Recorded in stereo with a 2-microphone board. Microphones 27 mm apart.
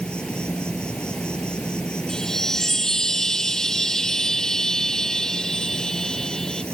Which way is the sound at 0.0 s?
30° left (ahead or behind).